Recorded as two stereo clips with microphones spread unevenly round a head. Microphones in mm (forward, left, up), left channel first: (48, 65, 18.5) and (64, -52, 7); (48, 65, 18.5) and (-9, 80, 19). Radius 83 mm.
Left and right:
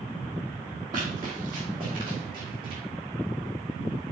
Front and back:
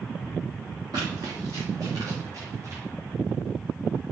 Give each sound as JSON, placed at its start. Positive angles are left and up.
{"t": 0.9, "sound": "running footsteps", "azimuth_deg": -150, "distance_m": 2.5}